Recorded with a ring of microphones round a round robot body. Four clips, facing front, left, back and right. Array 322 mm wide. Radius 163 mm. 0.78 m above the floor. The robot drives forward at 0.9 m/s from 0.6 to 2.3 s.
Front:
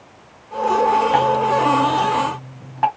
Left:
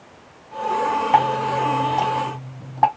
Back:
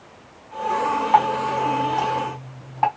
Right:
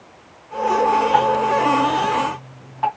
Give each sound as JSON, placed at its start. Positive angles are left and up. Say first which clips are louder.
{"t": 1.1, "sound": "dripping", "louder": "right 2 dB, front 2 dB", "azimuth_deg": 55, "distance_m": 3.5}